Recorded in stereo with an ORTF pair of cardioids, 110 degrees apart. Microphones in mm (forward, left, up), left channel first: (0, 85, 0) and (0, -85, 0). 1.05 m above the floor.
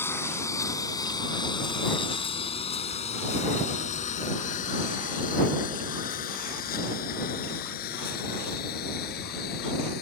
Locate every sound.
0.0 s a lawn mower: 15° left; by 10.0 s 70° left